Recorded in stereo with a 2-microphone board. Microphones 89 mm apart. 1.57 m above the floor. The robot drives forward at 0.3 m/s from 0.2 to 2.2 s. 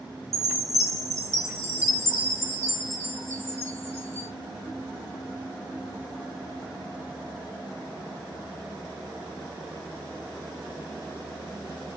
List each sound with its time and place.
0.3 s a chime: 40° right (ahead or behind), 0.8 m; by 4.3 s 30° right (ahead or behind), 1.1 m